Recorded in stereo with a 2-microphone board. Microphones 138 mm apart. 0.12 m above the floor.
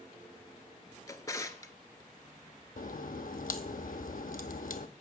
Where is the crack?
70° left (ahead or behind), 0.7 m.